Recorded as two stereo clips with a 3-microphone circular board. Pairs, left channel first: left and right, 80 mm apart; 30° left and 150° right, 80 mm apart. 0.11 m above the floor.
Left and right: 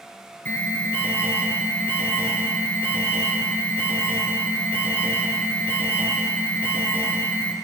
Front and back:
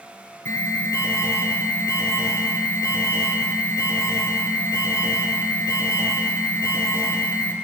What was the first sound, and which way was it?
An alarm, 45° left.